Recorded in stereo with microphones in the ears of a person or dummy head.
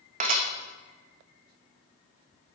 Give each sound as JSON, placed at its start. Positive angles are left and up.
{"t": 0.2, "sound": "dishes clattering", "side_deg": -35, "distance_m": 1.2}